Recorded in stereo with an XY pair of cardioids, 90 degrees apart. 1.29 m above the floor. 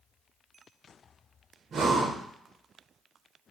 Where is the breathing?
65° right, 0.5 m.